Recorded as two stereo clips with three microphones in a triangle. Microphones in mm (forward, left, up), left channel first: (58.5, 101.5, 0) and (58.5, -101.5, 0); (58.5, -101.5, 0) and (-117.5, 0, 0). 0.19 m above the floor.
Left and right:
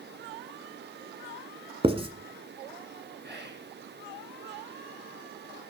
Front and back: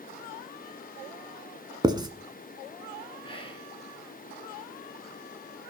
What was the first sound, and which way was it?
Writing, 145° right.